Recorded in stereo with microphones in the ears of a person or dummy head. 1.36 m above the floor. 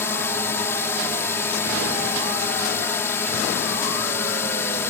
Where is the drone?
20° left (ahead or behind).